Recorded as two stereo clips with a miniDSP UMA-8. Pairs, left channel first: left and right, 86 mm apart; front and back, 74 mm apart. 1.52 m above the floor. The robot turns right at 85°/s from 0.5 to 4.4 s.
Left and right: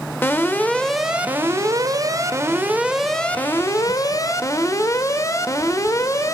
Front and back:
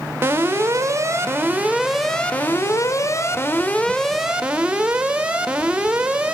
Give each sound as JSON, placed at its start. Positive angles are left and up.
{"t": 0.2, "sound": "an alarm", "azimuth_deg": 140, "distance_m": 0.8}